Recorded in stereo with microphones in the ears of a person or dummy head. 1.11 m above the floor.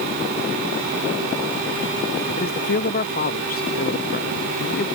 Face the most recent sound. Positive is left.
turn(degrees=45)  # may be behind; listen again after turning